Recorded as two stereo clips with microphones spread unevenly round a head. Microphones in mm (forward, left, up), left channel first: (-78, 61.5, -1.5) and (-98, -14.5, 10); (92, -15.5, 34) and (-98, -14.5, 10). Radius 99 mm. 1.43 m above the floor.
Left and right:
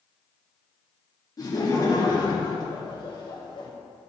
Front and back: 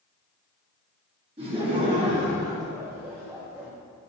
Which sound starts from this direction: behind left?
Laughter, at 1.4 s.